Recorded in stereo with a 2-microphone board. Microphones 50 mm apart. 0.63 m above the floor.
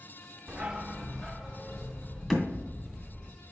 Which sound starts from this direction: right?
A dog barking, at 0.5 s.